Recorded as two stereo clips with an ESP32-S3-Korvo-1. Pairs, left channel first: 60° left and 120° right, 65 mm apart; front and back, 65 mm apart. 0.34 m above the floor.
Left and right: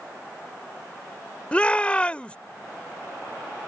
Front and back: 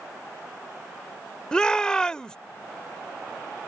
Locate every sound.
1.5 s a shout: 50° left